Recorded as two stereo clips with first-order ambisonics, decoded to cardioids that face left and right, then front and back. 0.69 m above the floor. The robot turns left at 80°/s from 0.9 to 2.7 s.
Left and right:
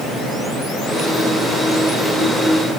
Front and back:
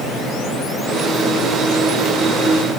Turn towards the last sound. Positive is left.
No sound to turn to.